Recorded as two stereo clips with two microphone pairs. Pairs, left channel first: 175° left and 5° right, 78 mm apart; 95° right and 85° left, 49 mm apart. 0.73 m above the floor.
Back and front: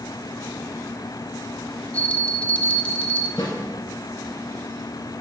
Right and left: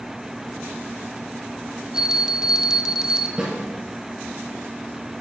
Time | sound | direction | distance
1.9 | a bell | 135° left | 0.6 m
3.4 | a snare drum | 155° left | 2.5 m